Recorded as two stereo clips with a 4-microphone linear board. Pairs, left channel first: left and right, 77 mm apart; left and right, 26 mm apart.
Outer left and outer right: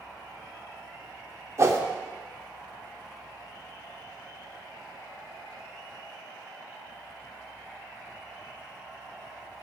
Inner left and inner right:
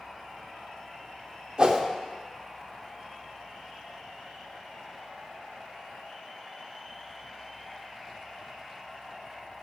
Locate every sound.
1.6 s a whoosh: 40° right (ahead or behind), 0.7 m